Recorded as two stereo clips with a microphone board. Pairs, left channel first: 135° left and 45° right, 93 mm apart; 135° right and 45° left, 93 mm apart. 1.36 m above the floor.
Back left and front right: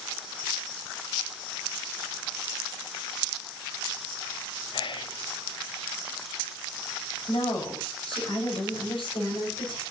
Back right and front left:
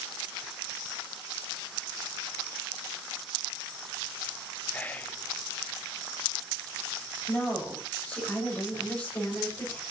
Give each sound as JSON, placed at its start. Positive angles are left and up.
{"t": 4.7, "sound": "whispering", "azimuth_deg": 155, "distance_m": 0.7}
{"t": 7.3, "sound": "a woman speaking", "azimuth_deg": 155, "distance_m": 7.0}